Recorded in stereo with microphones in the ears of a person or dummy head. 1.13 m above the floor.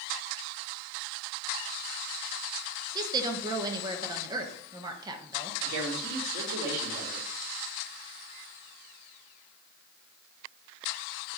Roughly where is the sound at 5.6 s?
Right.